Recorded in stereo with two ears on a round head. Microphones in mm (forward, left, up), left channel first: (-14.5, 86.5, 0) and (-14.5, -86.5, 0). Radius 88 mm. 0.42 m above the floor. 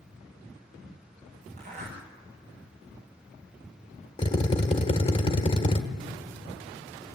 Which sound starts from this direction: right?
A zipper, at 1.6 s.